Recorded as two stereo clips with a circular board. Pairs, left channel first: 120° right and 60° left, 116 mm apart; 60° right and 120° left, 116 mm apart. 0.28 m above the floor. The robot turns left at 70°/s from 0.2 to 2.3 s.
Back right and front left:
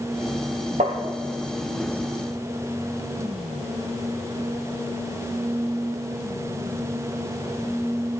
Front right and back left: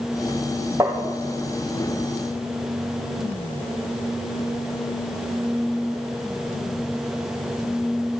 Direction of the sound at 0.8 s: 50° left.